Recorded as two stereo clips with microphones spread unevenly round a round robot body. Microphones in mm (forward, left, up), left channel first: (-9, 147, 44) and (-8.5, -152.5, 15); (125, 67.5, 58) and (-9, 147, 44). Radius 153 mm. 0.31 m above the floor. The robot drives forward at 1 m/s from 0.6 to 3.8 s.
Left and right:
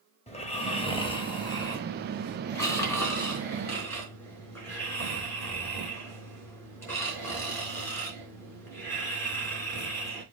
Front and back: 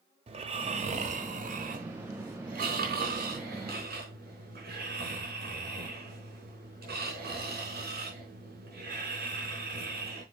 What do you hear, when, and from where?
0.3 s snoring: 155° left, 1.5 m; by 10.2 s 175° left, 4.5 m